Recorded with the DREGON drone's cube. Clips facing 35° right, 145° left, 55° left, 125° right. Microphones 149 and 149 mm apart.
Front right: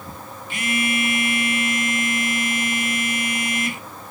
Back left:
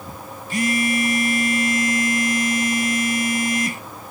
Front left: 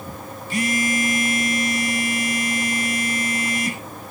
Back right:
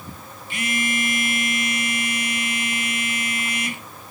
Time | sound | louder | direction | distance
0.5 | a phone buzzing | back left 4 dB, front left 4 dB | 100° left | 0.8 m